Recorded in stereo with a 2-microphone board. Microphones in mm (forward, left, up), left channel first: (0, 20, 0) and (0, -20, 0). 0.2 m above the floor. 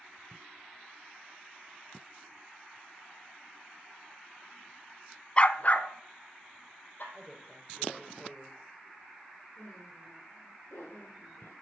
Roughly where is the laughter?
Left.